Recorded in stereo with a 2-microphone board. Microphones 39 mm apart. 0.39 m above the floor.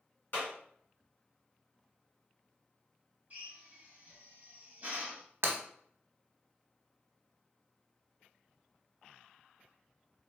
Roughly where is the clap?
Left.